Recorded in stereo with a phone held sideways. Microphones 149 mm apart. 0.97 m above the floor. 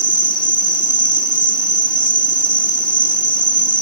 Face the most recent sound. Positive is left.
turn(degrees=65)  # may be behind; listen again after turning